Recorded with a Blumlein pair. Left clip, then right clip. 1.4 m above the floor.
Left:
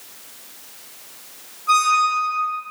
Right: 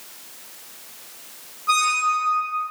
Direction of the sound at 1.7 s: 10° right.